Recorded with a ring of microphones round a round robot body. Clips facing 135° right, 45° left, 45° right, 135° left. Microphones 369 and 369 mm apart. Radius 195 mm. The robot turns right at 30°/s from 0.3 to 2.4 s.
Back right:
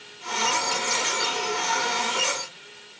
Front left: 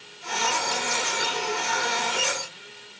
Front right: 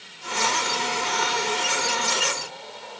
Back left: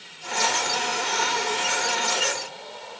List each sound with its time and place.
Only background noise.